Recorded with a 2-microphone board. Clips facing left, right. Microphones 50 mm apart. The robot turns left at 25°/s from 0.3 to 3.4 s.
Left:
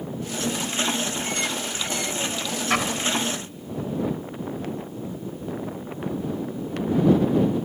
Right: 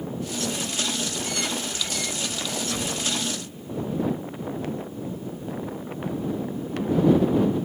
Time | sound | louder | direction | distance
2.7 | an explosion | left 9 dB | 70° left (ahead or behind) | ?